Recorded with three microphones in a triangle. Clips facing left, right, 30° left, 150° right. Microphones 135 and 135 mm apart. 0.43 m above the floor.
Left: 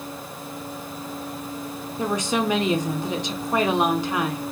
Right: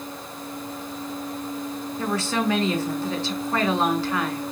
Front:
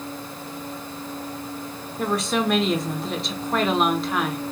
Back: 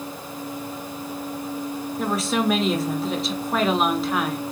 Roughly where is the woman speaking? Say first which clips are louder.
Left 2 dB, even; behind left.